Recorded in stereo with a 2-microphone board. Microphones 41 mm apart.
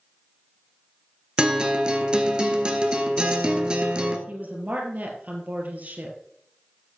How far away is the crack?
I don't hear a crack.